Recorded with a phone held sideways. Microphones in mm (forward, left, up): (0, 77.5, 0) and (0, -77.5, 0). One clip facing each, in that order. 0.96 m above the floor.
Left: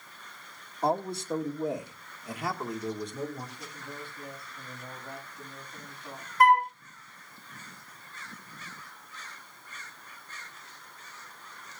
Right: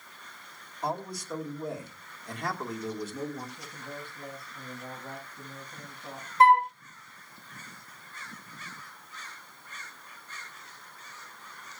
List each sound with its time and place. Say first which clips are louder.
0.8 s a man speaking: left 5 dB; 35° left (ahead or behind), 1.9 m; by 3.5 s 10° right (ahead or behind), 2 m
3.6 s a man speaking: right 1 dB; 45° right (ahead or behind), 6.5 m
6.4 s a flute: right 2 dB; 25° right (ahead or behind), 0.6 m